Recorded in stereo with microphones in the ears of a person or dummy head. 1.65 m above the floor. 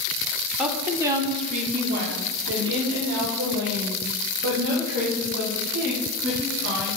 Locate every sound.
0.6 s a woman speaking: 5° right (ahead or behind), 1.2 m; by 6.9 s 55° right (ahead or behind), 4 m